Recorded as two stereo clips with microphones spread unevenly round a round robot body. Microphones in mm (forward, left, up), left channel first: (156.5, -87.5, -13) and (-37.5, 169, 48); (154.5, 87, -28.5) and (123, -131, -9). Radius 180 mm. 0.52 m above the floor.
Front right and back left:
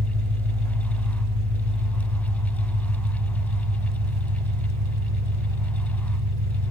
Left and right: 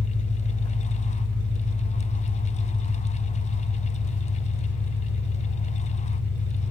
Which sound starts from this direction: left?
An engine running, at 0.0 s.